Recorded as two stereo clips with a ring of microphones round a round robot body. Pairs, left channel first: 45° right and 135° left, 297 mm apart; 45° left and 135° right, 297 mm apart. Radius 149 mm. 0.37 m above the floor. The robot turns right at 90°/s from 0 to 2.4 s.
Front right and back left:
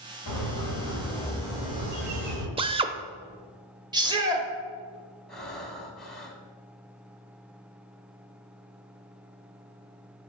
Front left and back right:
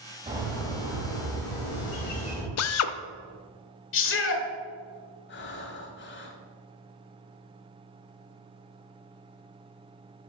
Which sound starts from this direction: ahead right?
A bird, at 0.3 s.